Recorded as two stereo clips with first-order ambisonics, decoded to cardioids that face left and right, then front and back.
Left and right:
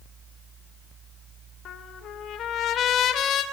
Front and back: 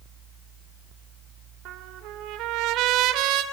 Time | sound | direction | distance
1.6 | a trumpet | 145° left | 3 m